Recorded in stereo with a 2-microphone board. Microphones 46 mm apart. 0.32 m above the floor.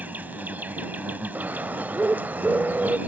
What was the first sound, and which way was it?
An insect, 40° right (ahead or behind).